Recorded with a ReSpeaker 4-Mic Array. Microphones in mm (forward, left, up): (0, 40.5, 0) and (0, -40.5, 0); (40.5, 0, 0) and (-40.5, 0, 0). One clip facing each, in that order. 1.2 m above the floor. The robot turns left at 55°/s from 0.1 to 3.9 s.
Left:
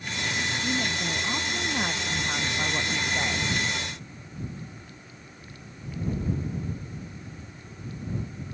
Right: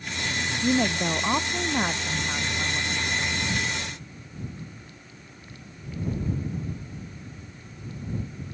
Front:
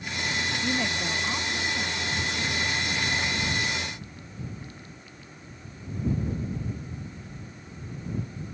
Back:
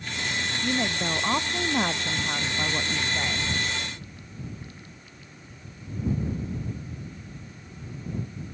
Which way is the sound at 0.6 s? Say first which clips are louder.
Right 10 dB, back 4 dB; 90° right.